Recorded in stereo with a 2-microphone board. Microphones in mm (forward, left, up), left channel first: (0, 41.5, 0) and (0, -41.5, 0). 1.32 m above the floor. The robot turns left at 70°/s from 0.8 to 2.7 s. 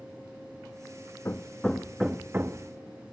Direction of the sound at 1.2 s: 30° left (ahead or behind).